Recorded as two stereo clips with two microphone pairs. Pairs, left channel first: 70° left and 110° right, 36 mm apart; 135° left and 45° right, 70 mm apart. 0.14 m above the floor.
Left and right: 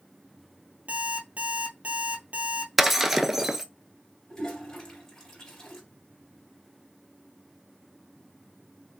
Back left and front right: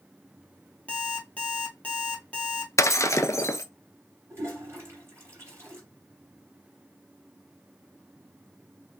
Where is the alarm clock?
155° right, 1.5 m.